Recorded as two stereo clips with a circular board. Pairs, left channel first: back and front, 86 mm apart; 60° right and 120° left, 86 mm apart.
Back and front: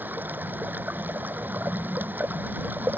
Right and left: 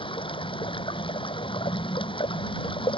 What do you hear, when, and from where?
0.0 s running water: 70° right